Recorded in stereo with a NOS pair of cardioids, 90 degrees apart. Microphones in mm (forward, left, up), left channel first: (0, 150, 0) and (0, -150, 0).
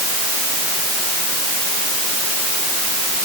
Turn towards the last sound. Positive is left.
No sound to turn to.